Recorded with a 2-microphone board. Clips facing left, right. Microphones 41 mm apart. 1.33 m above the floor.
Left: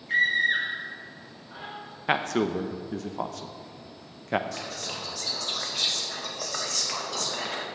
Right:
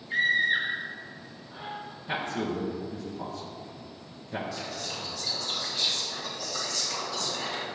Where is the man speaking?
70° left (ahead or behind), 0.9 m.